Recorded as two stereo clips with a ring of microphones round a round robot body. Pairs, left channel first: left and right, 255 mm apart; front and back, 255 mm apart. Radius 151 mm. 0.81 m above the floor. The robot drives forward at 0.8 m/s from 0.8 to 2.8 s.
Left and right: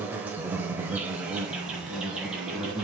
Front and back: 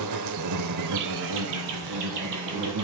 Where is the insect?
175° right, 0.8 m; by 2.9 s straight behind, 2.5 m.